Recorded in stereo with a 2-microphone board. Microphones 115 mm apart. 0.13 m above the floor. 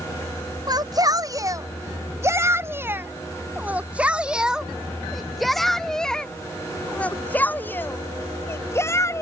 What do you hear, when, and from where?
0.7 s a shout: 35° right (ahead or behind); by 9.2 s 25° left (ahead or behind)